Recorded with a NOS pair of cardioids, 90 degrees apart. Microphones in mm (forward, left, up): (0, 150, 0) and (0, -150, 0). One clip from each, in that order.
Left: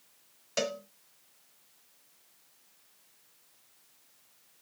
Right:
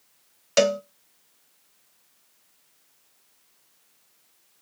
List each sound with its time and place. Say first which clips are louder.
0.6 s a cowbell: right 12 dB; 45° right, 0.6 m